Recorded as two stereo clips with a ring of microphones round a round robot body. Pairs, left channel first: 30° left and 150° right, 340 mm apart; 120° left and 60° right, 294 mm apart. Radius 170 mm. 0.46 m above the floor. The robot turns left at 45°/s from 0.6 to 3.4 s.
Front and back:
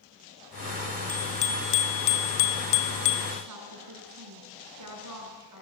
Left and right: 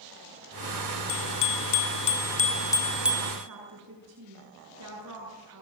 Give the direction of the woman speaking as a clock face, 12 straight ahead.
4 o'clock.